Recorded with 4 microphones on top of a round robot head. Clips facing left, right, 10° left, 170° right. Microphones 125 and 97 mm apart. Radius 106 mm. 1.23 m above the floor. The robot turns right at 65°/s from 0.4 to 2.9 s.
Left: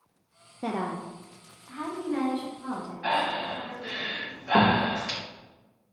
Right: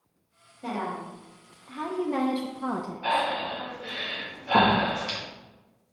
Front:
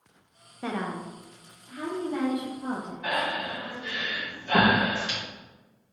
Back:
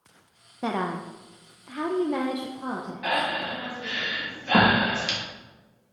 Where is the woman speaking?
115° left, 0.6 m; by 3.3 s 95° right, 0.6 m.